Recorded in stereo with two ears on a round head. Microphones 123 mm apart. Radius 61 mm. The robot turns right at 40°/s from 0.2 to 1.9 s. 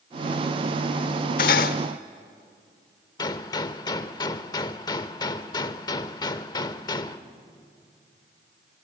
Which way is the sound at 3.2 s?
30° left (ahead or behind).